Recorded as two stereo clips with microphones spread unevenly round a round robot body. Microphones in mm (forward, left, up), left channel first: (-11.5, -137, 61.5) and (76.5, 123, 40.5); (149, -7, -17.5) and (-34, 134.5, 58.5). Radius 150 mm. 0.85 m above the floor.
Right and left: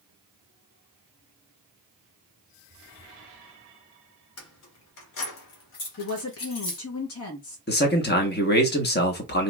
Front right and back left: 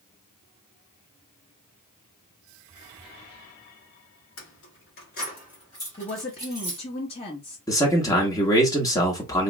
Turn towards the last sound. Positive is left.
turn(degrees=-75)